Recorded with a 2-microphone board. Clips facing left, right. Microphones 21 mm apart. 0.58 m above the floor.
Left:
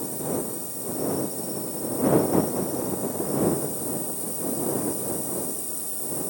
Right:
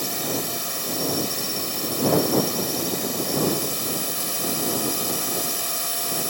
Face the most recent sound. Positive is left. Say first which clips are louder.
# right 2 dB
turn(degrees=-65)  # may be behind; listen again after turning